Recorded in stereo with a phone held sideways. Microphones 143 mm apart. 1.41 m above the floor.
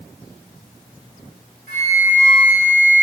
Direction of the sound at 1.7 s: 75° right (ahead or behind).